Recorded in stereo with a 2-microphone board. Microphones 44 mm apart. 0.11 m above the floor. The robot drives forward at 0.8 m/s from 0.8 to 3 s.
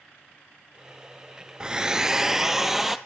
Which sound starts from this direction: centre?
A hair dryer, at 1.6 s.